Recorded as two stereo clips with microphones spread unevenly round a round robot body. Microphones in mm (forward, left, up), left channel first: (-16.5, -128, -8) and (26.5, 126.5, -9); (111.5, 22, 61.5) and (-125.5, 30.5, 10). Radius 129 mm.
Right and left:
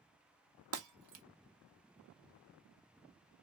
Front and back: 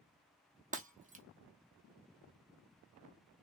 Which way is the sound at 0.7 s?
115° left.